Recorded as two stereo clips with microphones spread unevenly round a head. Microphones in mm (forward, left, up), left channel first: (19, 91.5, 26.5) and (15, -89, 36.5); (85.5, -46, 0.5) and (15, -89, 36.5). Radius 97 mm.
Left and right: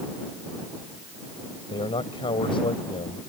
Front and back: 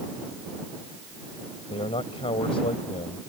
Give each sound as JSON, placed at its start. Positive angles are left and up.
{"t": 1.7, "sound": "a man speaking", "azimuth_deg": 25}